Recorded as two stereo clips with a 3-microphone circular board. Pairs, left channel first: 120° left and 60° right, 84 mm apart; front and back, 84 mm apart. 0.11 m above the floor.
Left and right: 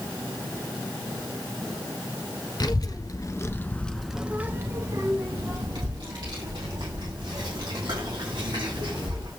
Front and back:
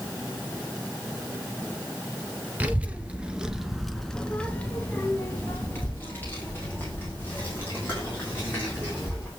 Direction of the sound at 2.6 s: 115° left.